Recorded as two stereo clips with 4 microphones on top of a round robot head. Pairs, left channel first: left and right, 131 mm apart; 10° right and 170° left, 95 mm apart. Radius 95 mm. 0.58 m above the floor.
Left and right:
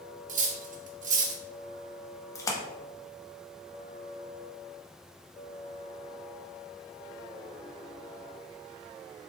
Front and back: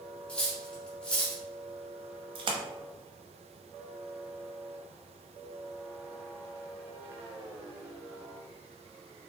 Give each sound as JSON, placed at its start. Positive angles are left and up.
{"t": 0.3, "sound": "cutlery clinking", "azimuth_deg": -90, "distance_m": 0.7}
{"t": 2.4, "sound": "a splash", "azimuth_deg": 150, "distance_m": 0.5}